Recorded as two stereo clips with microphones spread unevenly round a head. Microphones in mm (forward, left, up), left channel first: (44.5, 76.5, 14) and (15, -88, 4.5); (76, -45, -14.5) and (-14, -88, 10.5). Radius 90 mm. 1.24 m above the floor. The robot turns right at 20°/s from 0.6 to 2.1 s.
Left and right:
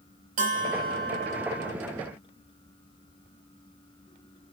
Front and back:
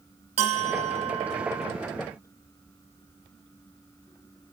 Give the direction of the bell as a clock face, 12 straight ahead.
5 o'clock.